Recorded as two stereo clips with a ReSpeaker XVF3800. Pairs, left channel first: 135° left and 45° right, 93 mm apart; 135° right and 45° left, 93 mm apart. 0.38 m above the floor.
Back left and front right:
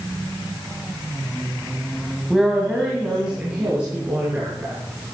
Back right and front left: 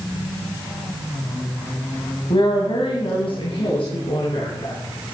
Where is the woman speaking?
130° right, 2.0 m; by 4.8 s 115° right, 4 m.